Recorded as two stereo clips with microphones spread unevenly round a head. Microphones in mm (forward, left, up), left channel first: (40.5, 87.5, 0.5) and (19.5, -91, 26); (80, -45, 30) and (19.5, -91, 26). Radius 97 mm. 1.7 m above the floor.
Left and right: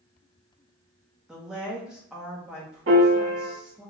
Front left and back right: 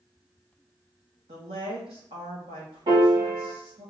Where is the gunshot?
No gunshot in this recording.